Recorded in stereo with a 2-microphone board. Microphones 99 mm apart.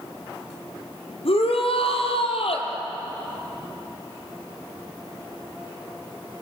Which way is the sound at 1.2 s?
70° left (ahead or behind).